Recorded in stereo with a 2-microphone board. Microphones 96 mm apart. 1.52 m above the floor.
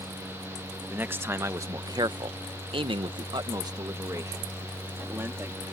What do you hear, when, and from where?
0.9 s a man speaking: 20° right (ahead or behind); by 5.6 s 25° right (ahead or behind)